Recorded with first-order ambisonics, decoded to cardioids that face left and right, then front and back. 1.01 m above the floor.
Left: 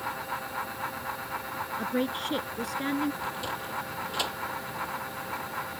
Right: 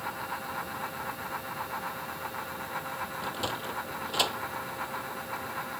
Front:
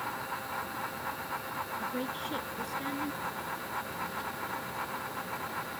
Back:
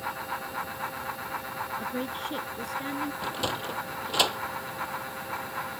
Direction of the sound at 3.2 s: 165° right.